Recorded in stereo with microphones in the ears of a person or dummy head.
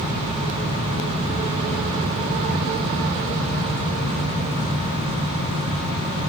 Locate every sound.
Only background noise.